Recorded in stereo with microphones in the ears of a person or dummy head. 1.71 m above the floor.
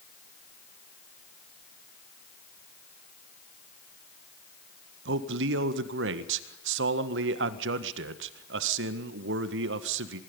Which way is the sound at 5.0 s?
75° right (ahead or behind).